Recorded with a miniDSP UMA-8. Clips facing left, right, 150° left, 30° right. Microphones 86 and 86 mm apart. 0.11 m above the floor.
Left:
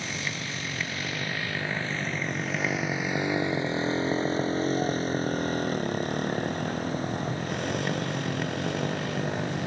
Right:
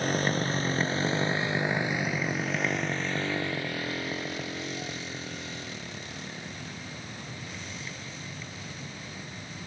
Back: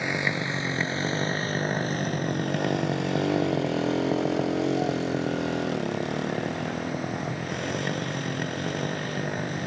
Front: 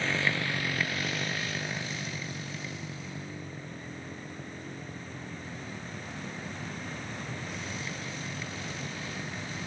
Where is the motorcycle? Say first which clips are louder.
Right 7 dB, back 3 dB; 135° right; by 9.7 s 115° left.